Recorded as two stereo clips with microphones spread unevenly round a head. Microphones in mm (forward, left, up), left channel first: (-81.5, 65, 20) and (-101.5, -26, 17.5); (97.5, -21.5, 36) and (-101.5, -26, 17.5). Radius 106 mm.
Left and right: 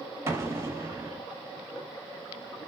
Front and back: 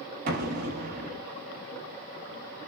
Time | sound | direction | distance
0.3 | an explosion | 150° right | 0.9 m